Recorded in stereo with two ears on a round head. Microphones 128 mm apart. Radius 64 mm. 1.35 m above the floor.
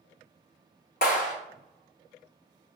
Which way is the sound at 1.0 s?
65° left (ahead or behind).